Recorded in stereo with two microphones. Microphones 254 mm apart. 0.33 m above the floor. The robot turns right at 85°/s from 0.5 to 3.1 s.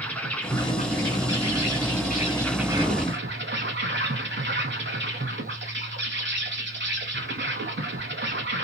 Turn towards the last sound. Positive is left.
turn(degrees=-135)